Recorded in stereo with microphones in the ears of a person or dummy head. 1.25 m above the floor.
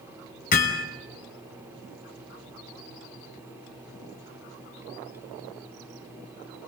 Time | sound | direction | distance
0.5 | hammering | 55° left (ahead or behind) | 5 m